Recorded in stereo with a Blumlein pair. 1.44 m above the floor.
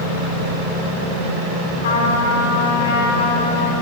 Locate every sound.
1.8 s a trumpet: 60° left, 3.5 m